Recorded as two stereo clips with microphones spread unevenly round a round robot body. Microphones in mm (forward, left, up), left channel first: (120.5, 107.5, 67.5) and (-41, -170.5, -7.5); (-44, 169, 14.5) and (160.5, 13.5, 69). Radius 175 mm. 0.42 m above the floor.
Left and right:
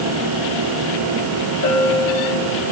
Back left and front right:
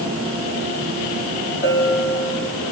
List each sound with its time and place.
1.6 s a bell: 100° left, 7 m